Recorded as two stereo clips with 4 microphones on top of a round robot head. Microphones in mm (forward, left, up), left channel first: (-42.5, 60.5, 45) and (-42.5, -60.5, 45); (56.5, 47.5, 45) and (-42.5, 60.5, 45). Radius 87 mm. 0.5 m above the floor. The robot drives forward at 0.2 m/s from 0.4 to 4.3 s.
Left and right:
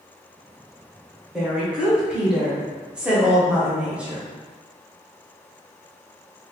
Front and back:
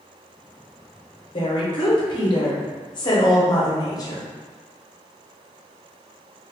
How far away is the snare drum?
No snare drum in this recording.